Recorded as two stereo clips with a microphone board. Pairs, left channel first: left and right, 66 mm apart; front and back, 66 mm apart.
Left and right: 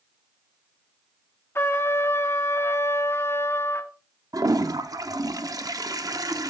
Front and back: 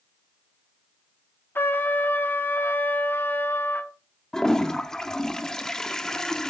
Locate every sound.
1.6 s a trumpet: 50° left, 0.8 m
4.3 s a toilet flushing: 80° right, 0.6 m